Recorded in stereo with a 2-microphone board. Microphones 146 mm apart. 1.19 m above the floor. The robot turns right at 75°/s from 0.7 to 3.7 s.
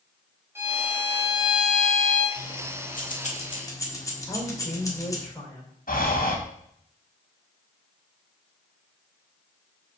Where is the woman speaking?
10° left (ahead or behind), 3.5 m.